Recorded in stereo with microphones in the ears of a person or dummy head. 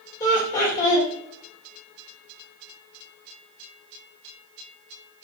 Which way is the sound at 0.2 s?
15° left (ahead or behind).